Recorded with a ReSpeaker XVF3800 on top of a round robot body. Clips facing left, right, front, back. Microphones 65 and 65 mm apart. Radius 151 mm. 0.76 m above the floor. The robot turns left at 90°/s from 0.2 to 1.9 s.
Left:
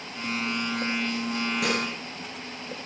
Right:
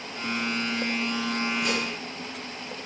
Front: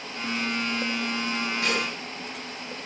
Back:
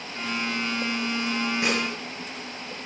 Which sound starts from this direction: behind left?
Dishes clattering, at 1.6 s.